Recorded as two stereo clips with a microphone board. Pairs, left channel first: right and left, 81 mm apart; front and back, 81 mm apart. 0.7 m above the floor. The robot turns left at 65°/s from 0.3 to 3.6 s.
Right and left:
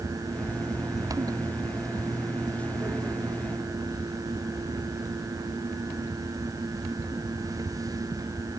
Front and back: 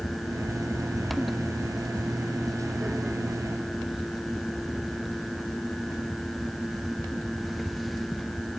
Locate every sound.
Only background noise.